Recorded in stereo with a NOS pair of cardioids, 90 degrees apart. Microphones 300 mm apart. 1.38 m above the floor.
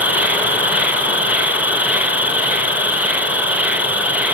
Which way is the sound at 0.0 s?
5° right.